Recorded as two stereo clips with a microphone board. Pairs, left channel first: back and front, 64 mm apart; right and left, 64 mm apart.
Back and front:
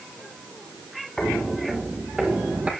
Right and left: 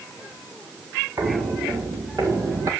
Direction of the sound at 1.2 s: 105° left.